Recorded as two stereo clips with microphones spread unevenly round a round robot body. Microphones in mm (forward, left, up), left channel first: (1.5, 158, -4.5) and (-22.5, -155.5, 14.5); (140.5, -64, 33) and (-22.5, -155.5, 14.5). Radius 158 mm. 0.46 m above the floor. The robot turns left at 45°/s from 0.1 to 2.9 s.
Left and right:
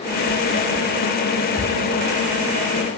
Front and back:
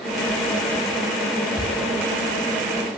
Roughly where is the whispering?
Left.